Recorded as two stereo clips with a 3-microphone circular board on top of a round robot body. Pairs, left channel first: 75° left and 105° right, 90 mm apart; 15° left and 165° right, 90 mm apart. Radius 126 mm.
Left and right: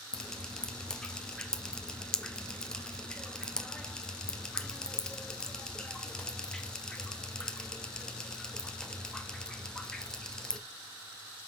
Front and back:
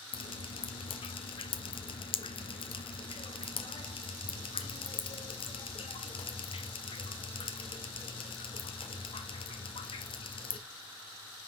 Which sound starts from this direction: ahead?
Dripping, at 0.1 s.